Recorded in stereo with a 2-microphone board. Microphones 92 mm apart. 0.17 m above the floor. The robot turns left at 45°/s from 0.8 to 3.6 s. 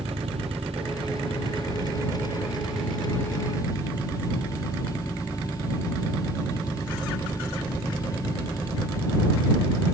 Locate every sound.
0.0 s an engine running: 90° right; by 9.9 s 145° left